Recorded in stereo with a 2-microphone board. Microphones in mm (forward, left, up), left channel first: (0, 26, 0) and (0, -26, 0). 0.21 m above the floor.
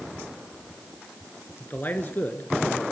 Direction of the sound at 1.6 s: 40° left (ahead or behind).